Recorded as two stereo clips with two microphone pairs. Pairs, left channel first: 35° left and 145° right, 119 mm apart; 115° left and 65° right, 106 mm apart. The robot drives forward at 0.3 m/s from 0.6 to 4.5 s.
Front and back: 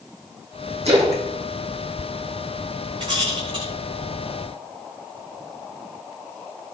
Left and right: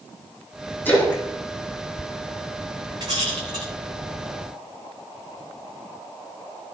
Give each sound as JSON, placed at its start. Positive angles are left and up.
{"t": 0.8, "sound": "a splash", "azimuth_deg": -175, "distance_m": 5.0}
{"t": 3.0, "sound": "a rattle", "azimuth_deg": -105, "distance_m": 5.5}